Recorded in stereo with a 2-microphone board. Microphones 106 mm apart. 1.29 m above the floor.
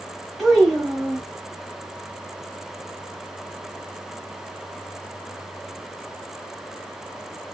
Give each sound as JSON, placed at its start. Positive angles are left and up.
{"t": 0.4, "sound": "a child speaking", "side_deg": 0, "distance_m": 0.8}